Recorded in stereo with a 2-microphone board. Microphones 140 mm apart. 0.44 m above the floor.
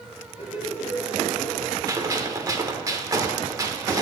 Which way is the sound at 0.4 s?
40° left (ahead or behind).